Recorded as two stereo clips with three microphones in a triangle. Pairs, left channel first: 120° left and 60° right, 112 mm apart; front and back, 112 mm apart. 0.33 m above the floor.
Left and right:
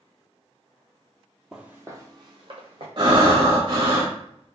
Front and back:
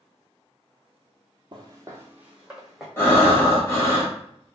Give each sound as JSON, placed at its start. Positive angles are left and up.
{"t": 1.5, "sound": "footsteps", "azimuth_deg": -145, "distance_m": 0.6}
{"t": 3.0, "sound": "breathing", "azimuth_deg": -60, "distance_m": 0.8}